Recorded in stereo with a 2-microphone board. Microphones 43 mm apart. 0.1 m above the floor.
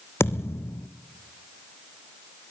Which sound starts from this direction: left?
A thud, at 0.2 s.